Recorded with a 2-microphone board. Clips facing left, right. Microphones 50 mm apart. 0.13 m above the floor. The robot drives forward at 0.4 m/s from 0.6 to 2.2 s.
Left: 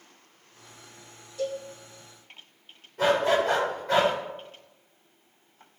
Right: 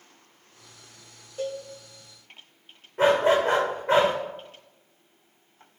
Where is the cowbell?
45° right (ahead or behind), 4 m.